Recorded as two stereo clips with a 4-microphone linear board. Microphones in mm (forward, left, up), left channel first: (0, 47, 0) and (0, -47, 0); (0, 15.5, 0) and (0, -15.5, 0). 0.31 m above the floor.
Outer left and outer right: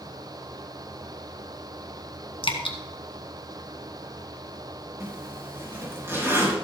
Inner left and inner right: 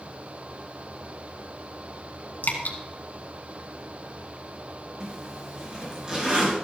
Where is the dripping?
70° left (ahead or behind), 1.7 m.